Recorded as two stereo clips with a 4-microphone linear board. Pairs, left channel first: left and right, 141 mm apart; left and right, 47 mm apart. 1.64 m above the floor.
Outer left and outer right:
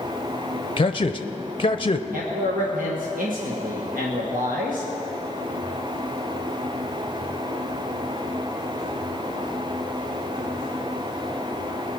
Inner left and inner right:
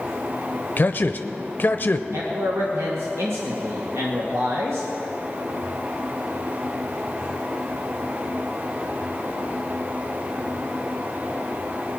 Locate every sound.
0.8 s a man speaking: 40° left (ahead or behind), 0.6 m
2.1 s a man speaking: 85° right, 1.9 m